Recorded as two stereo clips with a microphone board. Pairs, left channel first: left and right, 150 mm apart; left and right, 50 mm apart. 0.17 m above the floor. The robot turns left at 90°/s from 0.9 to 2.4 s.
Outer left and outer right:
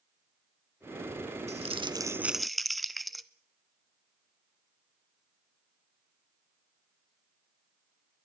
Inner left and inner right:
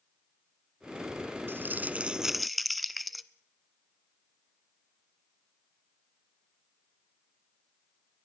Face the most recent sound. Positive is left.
turn(degrees=180)